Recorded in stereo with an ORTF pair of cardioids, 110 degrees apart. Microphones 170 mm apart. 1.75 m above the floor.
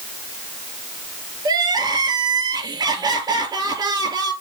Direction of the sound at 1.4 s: 25° right.